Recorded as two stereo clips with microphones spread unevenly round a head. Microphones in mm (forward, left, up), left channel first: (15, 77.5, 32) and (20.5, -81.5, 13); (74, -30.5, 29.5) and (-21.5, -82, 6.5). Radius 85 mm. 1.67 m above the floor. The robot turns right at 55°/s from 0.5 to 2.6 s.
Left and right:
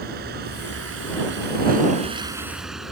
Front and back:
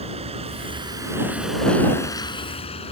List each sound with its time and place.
0.0 s a vehicle: 125° right; by 2.9 s straight ahead